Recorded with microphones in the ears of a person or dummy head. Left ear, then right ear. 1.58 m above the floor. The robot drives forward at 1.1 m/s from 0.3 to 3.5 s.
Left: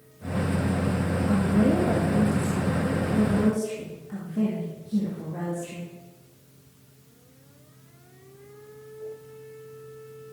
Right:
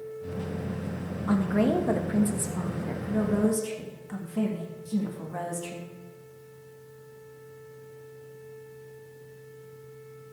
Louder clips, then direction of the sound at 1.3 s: Even; 50° right (ahead or behind).